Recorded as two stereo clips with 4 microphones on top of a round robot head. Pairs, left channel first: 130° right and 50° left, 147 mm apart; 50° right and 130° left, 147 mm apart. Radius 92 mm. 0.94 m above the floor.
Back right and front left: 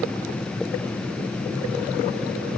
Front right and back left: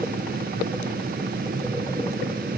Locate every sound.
Only background noise.